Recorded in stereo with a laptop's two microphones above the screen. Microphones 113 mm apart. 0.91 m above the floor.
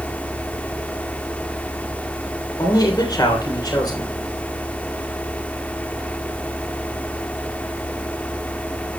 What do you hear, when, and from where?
0.0 s a fan: 10° left (ahead or behind), 0.9 m
2.6 s a man speaking: 35° left (ahead or behind), 3 m